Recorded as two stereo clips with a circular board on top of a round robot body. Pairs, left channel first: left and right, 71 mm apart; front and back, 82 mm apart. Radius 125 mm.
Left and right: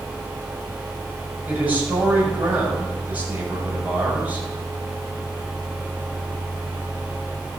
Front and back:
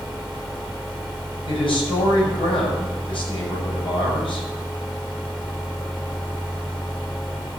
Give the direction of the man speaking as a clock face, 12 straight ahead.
1 o'clock.